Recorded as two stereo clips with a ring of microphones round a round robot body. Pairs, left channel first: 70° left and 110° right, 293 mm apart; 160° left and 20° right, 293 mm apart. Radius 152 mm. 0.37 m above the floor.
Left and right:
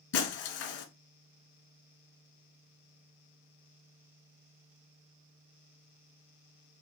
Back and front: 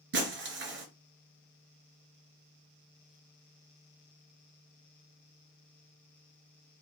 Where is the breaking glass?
30° left, 1.8 m.